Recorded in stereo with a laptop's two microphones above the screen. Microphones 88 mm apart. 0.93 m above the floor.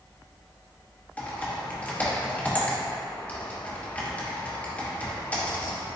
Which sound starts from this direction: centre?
Typing on a keyboard, at 1.2 s.